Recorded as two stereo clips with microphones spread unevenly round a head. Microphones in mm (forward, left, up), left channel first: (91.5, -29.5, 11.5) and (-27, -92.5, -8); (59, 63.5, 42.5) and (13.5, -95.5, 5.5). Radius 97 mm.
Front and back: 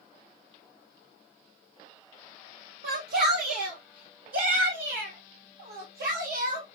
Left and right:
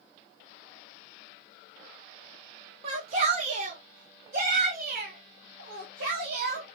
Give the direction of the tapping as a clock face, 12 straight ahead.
I don't hear tapping.